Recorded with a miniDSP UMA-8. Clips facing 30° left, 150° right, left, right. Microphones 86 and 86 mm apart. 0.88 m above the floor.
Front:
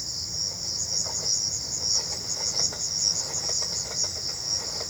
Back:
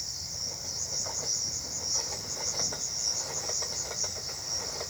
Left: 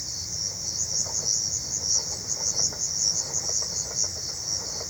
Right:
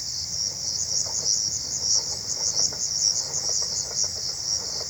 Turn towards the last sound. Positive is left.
turn(degrees=40)